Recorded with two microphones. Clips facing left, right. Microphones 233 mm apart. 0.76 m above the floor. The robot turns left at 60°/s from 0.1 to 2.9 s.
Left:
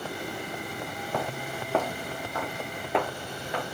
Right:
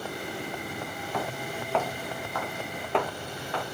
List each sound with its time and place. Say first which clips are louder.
1.1 s footsteps: left 1 dB; 50° left (ahead or behind), 1.5 m; by 3.6 s 20° left (ahead or behind), 2.5 m